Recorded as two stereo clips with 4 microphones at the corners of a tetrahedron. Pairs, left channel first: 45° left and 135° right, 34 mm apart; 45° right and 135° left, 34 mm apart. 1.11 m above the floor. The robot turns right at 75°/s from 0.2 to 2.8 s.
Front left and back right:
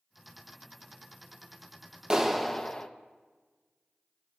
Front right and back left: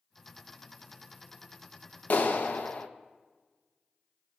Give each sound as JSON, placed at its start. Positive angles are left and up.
{"t": 2.1, "sound": "a clap", "azimuth_deg": -65, "distance_m": 0.9}